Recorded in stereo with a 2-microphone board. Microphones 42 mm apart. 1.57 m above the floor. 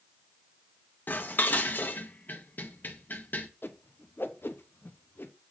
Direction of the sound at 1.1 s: 50° left (ahead or behind).